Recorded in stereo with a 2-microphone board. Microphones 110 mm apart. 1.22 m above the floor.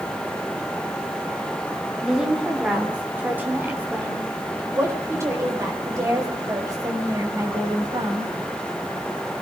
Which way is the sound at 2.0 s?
5° right (ahead or behind).